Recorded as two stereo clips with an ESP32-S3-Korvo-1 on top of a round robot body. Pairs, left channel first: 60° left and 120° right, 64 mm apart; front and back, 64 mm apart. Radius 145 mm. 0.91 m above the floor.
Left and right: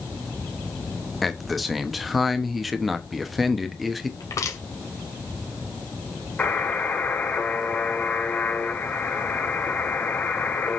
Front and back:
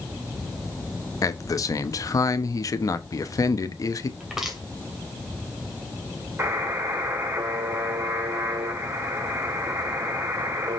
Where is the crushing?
100° left, 3 m.